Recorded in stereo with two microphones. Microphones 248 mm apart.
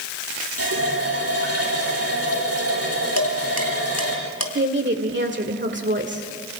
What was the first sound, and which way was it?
A running tap, 70° right (ahead or behind).